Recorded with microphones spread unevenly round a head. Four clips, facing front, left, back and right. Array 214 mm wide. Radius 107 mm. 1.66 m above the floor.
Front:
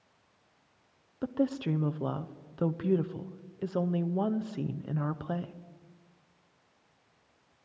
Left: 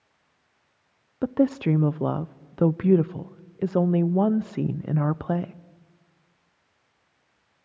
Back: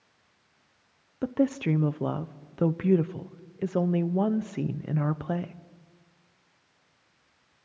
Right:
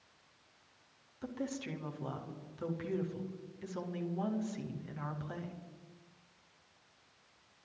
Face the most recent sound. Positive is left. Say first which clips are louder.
# left 18 dB, back 4 dB
turn(degrees=105)